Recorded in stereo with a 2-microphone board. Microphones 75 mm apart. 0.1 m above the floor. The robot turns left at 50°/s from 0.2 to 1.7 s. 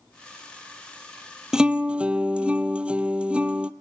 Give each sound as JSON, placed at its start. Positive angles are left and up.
{"t": 1.5, "sound": "a guitar", "side_deg": -10, "distance_m": 0.6}